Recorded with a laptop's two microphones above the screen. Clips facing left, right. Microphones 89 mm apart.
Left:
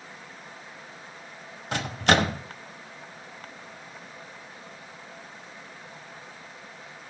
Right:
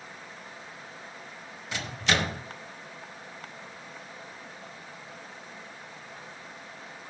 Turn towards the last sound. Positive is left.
turn(degrees=55)  # may be behind; listen again after turning